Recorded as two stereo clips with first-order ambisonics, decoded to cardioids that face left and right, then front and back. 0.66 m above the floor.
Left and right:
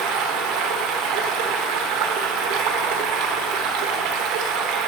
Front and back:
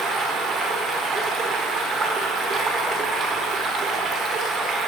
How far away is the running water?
About 1.0 m.